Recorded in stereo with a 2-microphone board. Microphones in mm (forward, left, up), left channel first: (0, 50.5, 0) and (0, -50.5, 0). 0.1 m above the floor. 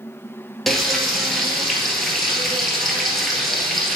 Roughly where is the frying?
Centre.